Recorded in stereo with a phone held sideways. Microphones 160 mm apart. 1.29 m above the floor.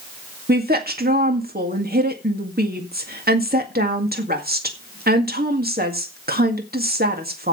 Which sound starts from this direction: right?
A woman speaking, at 0.5 s.